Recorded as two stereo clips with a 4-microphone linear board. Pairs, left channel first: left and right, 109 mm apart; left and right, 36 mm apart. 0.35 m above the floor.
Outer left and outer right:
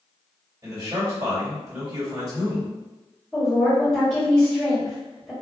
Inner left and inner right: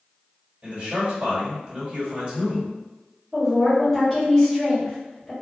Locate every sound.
0.6 s a man speaking: 35° right (ahead or behind), 1.7 m
3.3 s a woman speaking: 10° left (ahead or behind), 1.5 m